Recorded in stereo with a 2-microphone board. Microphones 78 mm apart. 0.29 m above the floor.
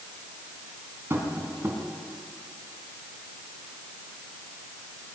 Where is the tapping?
30° right (ahead or behind), 2.5 m.